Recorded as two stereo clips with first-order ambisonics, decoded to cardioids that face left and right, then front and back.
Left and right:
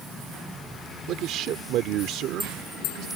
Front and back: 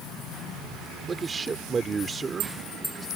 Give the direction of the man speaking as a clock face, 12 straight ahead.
4 o'clock.